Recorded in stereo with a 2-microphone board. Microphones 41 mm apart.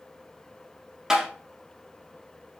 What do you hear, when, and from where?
1.1 s tapping: 15° right (ahead or behind), 1.1 m